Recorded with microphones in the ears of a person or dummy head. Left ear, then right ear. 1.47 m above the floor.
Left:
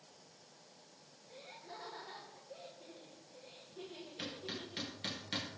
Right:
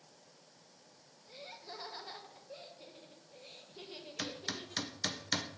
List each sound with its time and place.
1.3 s laughter: 85° right, 1.6 m
4.2 s hammering: 60° right (ahead or behind), 0.7 m